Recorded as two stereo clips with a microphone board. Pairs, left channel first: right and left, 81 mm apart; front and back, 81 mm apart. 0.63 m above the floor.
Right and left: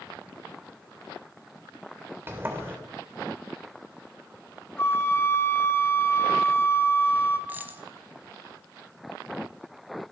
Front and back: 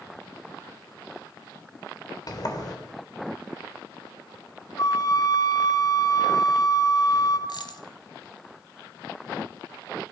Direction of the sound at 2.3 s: 30° left.